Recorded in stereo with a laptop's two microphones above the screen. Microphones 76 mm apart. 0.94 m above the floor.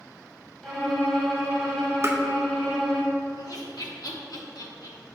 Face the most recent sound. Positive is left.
turn(degrees=65)  # may be behind; listen again after turning